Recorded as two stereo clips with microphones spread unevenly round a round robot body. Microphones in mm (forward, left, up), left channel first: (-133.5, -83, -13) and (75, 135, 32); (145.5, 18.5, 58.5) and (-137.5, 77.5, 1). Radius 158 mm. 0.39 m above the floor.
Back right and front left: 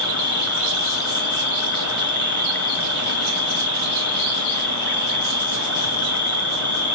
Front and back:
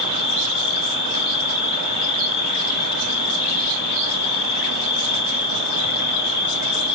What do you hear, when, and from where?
0.0 s an insect: 50° right, 4 m